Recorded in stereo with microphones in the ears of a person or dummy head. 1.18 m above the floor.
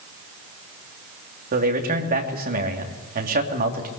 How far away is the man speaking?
About 3 m.